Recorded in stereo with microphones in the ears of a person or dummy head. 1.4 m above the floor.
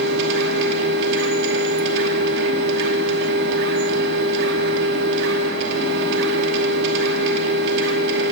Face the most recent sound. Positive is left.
turn(degrees=-65)  # may be behind; listen again after turning